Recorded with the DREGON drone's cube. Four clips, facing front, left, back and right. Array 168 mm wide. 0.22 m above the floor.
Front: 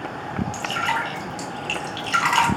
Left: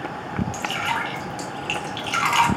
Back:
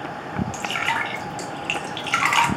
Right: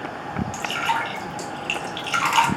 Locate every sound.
0.5 s dripping: straight behind, 0.9 m